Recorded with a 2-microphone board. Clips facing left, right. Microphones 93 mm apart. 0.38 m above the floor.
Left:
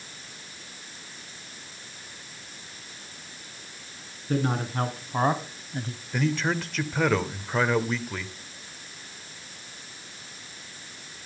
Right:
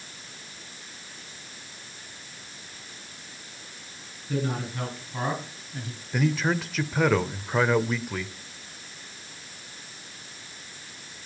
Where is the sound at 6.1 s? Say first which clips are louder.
Right 1 dB; 5° right (ahead or behind), 1.0 m.